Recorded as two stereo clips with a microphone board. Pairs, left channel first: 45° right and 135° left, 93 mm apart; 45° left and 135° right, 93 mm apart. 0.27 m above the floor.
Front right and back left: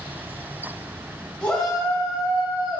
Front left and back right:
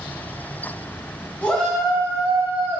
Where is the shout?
5° left, 1.0 m; by 2.8 s 160° right, 1.3 m.